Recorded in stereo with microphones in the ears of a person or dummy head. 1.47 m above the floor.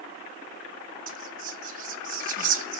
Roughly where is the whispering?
Right.